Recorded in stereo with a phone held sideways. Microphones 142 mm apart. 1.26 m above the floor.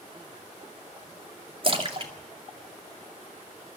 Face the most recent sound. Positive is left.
turn(degrees=-40)  # may be behind; listen again after turning